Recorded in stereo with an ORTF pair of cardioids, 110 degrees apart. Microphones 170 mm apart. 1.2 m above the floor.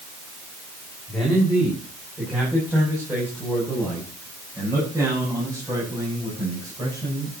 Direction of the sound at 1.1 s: Straight ahead.